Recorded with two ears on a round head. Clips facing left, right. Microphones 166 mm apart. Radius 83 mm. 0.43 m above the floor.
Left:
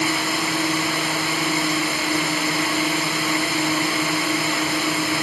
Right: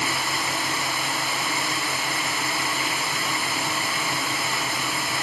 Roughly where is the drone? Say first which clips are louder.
Left 6 dB; left.